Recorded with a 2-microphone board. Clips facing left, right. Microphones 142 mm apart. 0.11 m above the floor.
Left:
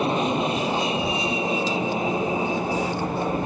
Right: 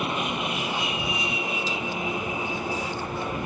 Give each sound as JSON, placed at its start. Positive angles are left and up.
{"t": 0.0, "sound": "an aircraft", "side_deg": 30}